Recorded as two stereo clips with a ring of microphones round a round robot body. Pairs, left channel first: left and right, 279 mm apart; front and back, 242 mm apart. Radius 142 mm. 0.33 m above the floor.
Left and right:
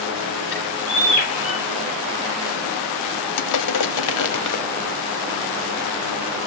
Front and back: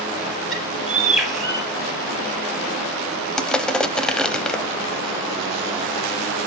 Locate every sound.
0.5 s a bird: 90° left, 5.5 m
3.4 s crushing: 85° left, 0.9 m